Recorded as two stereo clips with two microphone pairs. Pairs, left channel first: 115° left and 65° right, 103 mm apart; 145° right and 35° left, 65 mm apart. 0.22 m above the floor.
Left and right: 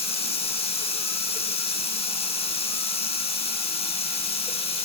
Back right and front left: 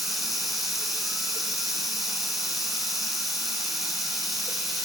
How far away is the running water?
About 0.9 m.